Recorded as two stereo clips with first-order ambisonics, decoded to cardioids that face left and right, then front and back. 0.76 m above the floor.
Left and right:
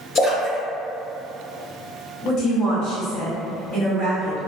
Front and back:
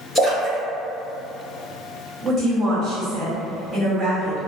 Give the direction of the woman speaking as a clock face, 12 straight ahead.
8 o'clock.